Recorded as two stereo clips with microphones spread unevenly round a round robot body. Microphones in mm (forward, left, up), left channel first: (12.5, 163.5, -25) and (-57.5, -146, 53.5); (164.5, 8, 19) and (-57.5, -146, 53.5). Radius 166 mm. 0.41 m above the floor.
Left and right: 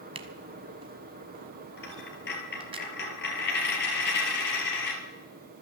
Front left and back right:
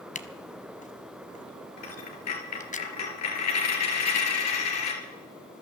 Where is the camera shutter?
30° right, 1.1 m.